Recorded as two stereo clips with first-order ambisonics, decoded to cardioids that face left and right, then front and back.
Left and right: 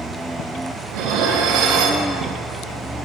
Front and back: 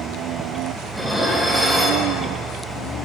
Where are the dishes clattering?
95° right, 0.8 m.